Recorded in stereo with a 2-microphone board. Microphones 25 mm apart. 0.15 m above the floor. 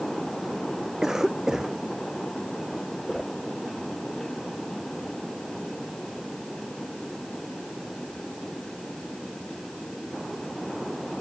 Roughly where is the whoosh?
Centre.